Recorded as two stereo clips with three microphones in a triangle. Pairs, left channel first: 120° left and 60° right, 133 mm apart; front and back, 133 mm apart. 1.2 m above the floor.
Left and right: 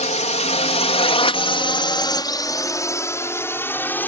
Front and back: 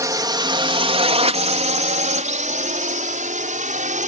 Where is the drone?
120° left; by 4.1 s 165° right.